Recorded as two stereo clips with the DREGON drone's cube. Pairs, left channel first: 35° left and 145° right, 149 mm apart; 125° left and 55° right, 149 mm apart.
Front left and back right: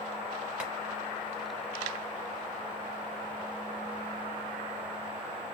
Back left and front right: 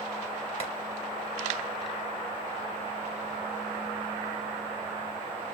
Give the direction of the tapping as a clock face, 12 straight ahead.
7 o'clock.